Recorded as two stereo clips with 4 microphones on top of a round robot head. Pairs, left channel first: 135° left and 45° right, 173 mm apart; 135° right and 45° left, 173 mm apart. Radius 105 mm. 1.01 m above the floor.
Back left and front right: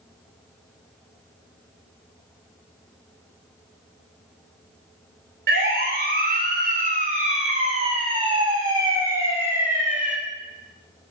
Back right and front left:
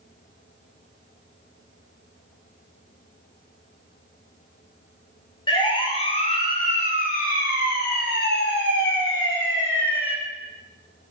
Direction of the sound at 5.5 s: 70° right.